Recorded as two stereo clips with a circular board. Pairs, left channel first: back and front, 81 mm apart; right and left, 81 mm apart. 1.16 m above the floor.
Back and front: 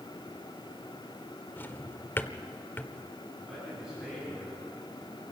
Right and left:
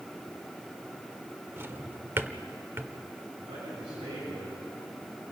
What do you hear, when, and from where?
1.6 s a drawer: 135° left, 0.9 m
3.4 s a man speaking: 85° left, 9.5 m